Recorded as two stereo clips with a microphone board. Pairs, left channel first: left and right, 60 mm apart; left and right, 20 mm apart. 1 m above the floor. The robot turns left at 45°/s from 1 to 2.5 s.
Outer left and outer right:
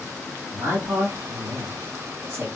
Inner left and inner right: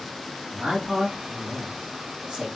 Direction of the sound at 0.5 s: 55° right (ahead or behind).